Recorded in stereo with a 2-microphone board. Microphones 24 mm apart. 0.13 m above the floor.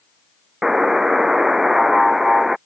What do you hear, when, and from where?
0.6 s a buzzer: 15° right (ahead or behind)